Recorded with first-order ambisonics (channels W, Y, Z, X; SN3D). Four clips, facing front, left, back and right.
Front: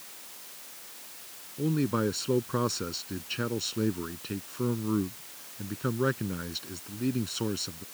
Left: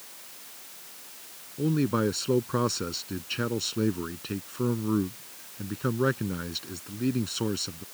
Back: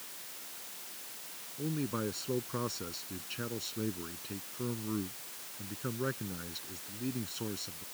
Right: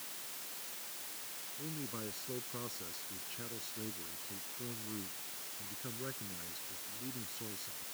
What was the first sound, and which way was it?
A man speaking, 60° left.